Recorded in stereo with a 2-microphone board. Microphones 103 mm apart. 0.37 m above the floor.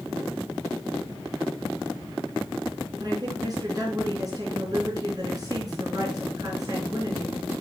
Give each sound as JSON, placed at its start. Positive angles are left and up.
{"t": 3.0, "sound": "a woman speaking", "side_deg": -40, "distance_m": 4.5}